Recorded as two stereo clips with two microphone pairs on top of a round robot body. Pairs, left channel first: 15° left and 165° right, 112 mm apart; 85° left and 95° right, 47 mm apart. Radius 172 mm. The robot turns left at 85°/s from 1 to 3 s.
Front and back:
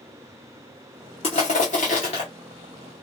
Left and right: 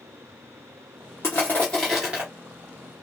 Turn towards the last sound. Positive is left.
turn(degrees=-95)